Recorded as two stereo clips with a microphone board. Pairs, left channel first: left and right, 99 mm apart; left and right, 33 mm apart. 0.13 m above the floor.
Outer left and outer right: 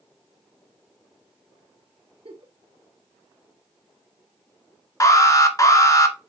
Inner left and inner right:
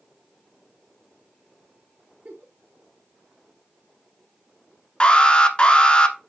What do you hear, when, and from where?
2.2 s a giggle: 60° right (ahead or behind), 2.5 m
5.0 s an alarm: 35° left (ahead or behind), 1.5 m